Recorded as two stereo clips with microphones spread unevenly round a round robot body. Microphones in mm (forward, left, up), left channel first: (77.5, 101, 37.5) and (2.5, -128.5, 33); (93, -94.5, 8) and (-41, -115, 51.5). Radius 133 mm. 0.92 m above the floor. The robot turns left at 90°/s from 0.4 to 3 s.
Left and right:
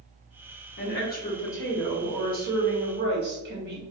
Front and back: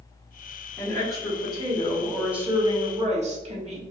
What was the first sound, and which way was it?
A woman speaking, 65° left.